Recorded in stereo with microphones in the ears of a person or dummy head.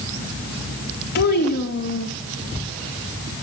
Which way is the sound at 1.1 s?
55° left (ahead or behind).